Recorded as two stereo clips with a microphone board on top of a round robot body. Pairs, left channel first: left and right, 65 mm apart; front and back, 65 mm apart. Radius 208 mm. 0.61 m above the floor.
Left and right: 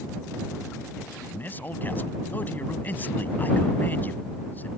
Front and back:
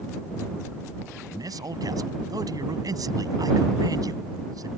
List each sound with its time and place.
1.3 s a man speaking: 155° left